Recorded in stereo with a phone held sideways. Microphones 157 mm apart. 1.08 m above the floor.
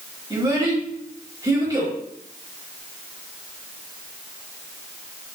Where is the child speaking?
20° right (ahead or behind), 1.2 m.